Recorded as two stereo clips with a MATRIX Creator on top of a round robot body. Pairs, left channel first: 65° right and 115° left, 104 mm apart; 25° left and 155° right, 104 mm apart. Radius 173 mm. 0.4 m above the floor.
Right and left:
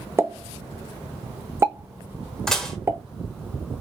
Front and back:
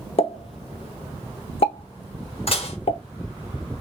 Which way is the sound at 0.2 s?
45° left.